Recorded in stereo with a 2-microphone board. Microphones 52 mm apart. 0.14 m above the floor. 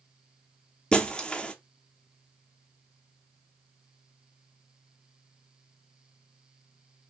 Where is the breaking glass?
20° left (ahead or behind), 0.6 m.